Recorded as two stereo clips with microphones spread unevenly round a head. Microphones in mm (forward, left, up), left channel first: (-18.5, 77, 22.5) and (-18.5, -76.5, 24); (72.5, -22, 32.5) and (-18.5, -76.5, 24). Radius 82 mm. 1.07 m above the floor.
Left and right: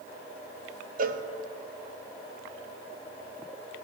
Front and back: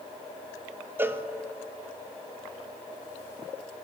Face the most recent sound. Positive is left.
turn(degrees=-85)